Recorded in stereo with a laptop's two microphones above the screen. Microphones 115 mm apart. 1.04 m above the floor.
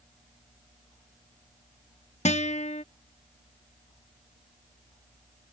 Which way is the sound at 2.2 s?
80° left.